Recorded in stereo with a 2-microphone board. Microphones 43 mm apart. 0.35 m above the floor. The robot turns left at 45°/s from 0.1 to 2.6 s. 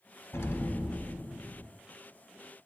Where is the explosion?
120° left, 0.9 m; by 1.7 s 55° left, 0.9 m.